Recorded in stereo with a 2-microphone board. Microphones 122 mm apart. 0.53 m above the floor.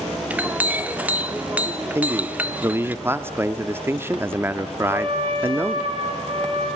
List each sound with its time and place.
0.3 s a clink: 15° right (ahead or behind), 0.7 m
1.9 s a man speaking: 20° right (ahead or behind), 0.7 m
4.8 s a trumpet: 50° right (ahead or behind), 5 m